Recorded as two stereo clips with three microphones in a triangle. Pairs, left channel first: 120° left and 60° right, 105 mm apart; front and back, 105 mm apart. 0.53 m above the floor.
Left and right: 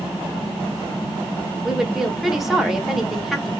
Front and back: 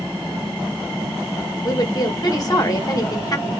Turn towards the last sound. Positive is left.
turn(degrees=30)